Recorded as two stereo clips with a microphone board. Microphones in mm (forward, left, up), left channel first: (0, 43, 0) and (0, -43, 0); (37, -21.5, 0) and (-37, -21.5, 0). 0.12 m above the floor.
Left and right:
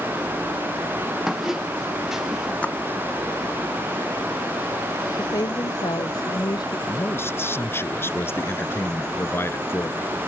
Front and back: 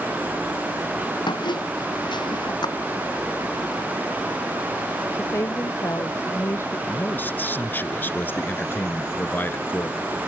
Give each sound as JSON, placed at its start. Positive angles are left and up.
{"t": 1.3, "sound": "a squeak", "azimuth_deg": -5}
{"t": 2.6, "sound": "a splash", "azimuth_deg": 15}
{"t": 5.1, "sound": "a woman speaking", "azimuth_deg": 55}
{"t": 6.9, "sound": "a man speaking", "azimuth_deg": 50}